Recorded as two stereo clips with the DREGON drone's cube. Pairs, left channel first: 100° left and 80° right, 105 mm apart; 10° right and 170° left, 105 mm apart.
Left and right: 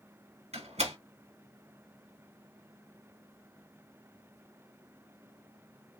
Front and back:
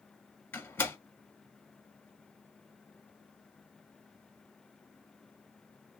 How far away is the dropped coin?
No dropped coin in this recording.